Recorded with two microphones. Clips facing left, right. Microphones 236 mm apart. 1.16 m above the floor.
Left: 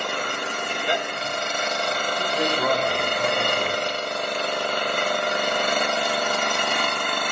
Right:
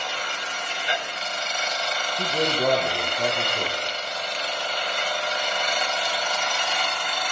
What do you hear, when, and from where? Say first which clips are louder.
0.0 s an engine running: left 6 dB; 60° left (ahead or behind), 0.9 m
2.2 s a man speaking: right 2 dB; 40° right (ahead or behind), 6.5 m